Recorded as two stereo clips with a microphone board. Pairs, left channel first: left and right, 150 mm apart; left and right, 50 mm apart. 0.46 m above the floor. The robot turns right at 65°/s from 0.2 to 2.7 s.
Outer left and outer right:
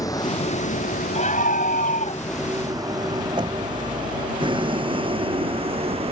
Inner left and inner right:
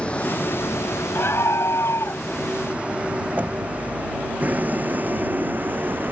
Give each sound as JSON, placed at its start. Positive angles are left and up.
{"t": 0.0, "sound": "a vehicle", "side_deg": 25}
{"t": 1.1, "sound": "a scream", "azimuth_deg": 55}
{"t": 3.4, "sound": "knocking", "side_deg": -35}